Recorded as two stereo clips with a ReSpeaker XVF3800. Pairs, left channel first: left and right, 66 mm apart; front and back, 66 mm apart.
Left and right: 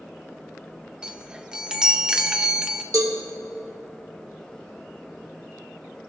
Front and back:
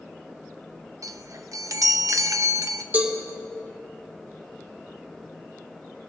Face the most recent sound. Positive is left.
turn(degrees=-115)